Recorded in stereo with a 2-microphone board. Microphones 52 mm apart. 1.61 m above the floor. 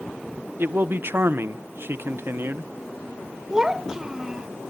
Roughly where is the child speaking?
Centre.